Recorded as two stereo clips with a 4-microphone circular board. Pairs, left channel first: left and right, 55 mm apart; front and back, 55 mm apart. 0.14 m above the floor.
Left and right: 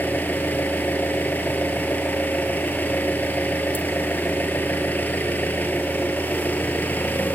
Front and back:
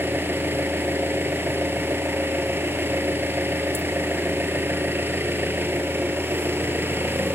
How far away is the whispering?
No whispering in this recording.